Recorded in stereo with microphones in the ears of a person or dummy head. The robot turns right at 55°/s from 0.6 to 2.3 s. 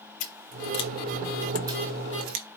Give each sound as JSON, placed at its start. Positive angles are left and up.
{"t": 0.2, "sound": "scissors", "side_deg": 35, "distance_m": 0.9}